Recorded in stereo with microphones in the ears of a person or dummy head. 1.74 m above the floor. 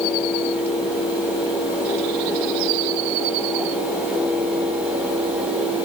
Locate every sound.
Only background noise.